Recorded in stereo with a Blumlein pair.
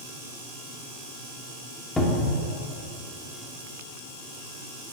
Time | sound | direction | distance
2.0 | a cupboard door | 10° left | 1.2 m